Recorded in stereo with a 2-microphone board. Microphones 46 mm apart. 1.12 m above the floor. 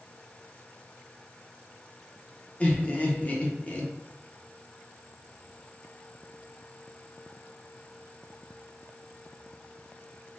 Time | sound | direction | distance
2.6 | laughter | 25° left (ahead or behind) | 0.7 m